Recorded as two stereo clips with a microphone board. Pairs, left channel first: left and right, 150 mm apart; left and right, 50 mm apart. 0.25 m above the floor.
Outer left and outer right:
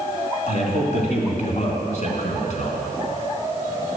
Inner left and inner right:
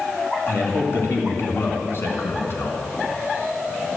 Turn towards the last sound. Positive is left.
turn(degrees=50)  # may be behind; listen again after turning